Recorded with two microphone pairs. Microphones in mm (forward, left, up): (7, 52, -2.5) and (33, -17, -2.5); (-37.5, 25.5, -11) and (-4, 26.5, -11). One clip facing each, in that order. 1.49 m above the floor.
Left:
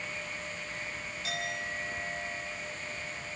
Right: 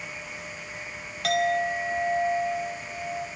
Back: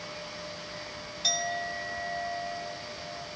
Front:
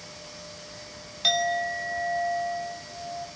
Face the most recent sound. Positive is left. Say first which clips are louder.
# right 14 dB, front 7 dB
turn(degrees=-60)